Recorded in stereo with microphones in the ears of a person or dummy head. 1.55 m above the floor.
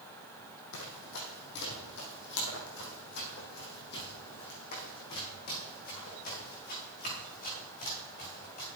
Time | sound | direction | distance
0.7 | running footsteps | 65° left (ahead or behind) | 3.5 m